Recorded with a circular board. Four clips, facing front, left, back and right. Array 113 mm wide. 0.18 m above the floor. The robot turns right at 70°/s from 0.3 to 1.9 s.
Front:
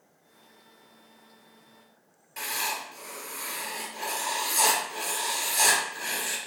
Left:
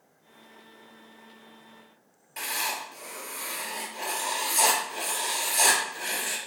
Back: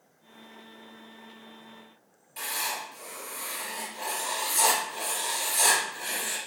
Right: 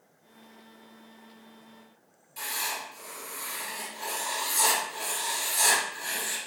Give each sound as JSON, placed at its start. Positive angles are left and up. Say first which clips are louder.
{"t": 2.4, "sound": "writing", "louder": "left 3 dB, front 1 dB", "azimuth_deg": 55, "distance_m": 2.5}